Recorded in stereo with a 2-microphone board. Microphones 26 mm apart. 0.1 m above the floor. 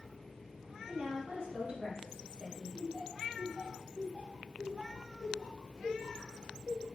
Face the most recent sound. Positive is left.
turn(degrees=-45)  # may be behind; listen again after turning